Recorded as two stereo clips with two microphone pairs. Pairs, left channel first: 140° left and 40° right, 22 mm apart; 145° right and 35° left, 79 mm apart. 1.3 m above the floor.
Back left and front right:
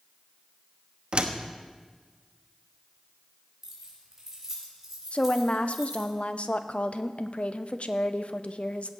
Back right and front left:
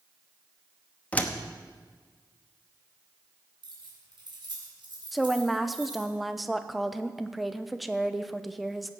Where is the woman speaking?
130° left, 0.7 m.